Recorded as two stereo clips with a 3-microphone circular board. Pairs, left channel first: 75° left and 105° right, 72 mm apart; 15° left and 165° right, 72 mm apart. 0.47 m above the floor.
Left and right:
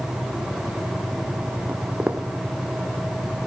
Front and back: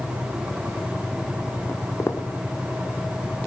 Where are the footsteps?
30° right, 1.2 m.